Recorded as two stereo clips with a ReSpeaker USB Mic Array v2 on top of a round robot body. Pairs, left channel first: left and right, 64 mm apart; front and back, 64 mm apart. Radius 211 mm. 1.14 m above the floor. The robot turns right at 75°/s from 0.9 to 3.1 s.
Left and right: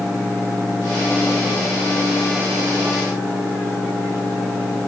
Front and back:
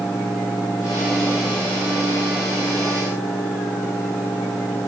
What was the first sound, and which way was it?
Only background noise.